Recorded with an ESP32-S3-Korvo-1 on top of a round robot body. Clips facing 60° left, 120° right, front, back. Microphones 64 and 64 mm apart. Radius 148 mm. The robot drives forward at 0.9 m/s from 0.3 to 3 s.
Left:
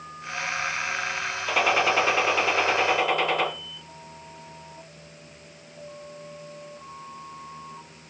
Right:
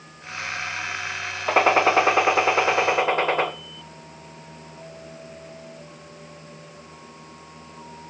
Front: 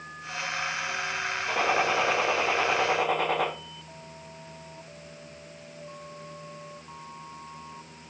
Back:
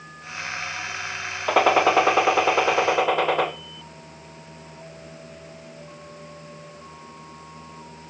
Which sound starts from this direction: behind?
A gunshot, at 1.5 s.